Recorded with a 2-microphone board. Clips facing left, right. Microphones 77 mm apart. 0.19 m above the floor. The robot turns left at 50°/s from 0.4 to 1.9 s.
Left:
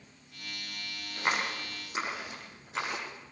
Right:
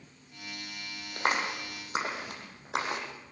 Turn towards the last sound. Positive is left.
turn(degrees=-75)  # may be behind; listen again after turning